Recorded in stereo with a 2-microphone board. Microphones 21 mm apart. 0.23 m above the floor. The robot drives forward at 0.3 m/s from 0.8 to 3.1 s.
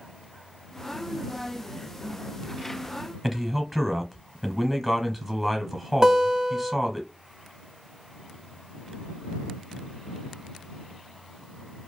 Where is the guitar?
30° right (ahead or behind), 1.0 m.